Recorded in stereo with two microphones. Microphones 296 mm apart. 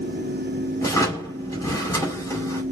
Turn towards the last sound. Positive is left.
turn(degrees=10)  # may be behind; listen again after turning